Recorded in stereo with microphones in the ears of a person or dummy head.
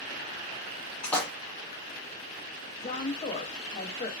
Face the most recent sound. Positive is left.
turn(degrees=35)  # may be behind; listen again after turning